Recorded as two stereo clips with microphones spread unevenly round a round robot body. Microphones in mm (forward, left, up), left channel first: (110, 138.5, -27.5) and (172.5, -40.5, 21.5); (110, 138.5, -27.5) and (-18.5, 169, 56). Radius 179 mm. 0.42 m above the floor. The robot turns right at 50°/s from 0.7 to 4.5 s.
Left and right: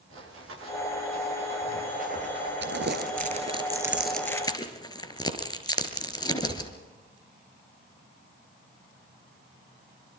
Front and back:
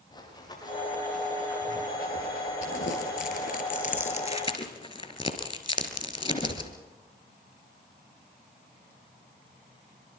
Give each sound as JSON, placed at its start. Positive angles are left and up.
{"t": 0.1, "sound": "running footsteps", "azimuth_deg": -90, "distance_m": 9.5}
{"t": 2.6, "sound": "crumpling", "azimuth_deg": -55, "distance_m": 4.5}